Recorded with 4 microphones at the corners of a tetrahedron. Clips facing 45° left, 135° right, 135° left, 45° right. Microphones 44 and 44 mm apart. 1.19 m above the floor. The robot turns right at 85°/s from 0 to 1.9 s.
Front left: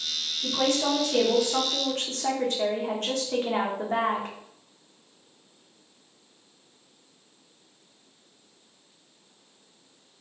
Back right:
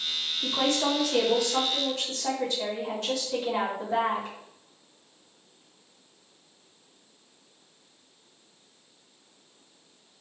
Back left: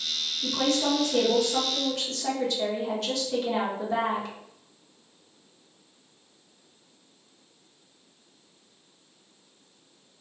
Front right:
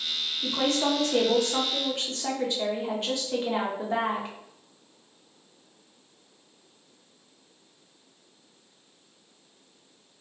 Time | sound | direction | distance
0.4 | a woman speaking | 110° right | 1.0 m